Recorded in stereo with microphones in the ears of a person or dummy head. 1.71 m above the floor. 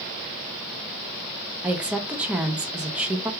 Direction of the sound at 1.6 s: 5° right (ahead or behind).